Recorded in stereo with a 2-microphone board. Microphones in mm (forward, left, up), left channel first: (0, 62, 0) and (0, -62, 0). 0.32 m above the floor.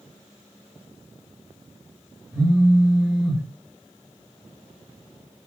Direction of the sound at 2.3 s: 5° left (ahead or behind).